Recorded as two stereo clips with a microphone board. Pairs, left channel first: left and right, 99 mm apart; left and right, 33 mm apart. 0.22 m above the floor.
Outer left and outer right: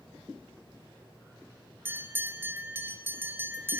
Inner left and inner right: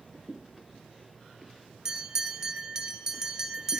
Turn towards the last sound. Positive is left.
turn(degrees=-20)  # may be behind; listen again after turning